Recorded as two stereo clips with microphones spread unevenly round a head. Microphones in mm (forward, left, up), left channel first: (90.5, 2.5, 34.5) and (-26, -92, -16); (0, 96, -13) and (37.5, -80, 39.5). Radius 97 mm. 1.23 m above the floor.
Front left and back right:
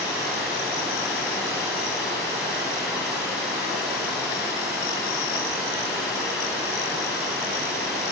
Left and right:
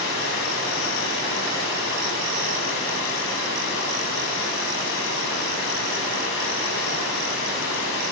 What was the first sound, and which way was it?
Running water, 130° left.